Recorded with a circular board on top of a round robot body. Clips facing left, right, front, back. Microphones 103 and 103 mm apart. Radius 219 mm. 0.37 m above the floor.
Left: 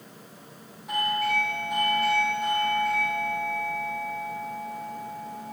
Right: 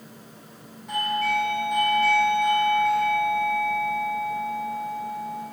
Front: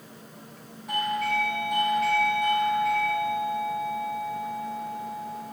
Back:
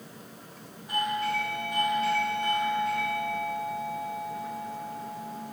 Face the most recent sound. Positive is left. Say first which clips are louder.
# right 2 dB, front 2 dB
turn(degrees=5)